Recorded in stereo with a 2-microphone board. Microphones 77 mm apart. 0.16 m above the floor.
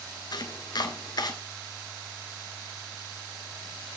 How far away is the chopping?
About 0.9 m.